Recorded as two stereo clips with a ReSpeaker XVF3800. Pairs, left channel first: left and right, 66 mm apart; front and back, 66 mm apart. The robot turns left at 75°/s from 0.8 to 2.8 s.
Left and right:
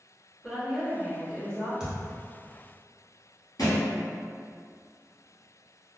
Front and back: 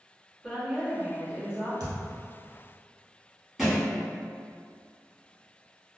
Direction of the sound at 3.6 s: 95° left.